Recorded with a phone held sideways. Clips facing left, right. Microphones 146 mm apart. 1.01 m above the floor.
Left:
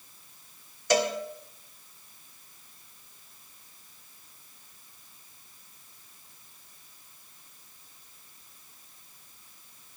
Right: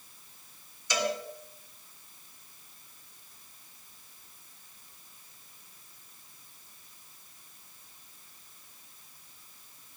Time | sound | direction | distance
0.9 | a cowbell | 60° left (ahead or behind) | 3 m